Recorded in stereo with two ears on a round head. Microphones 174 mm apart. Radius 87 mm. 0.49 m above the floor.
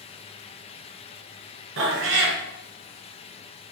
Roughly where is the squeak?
I don't hear a squeak.